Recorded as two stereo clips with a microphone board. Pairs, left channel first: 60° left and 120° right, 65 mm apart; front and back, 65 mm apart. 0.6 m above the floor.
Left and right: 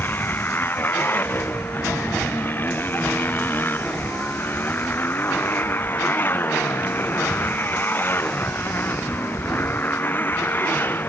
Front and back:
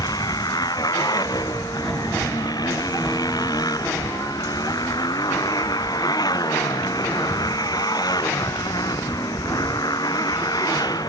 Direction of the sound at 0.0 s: 5° left.